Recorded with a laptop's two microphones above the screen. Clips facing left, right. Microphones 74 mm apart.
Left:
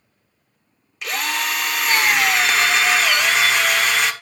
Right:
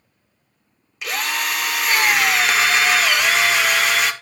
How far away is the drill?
About 0.7 m.